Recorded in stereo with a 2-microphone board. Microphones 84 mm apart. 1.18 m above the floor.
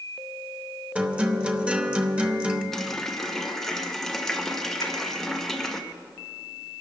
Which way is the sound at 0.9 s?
15° right (ahead or behind).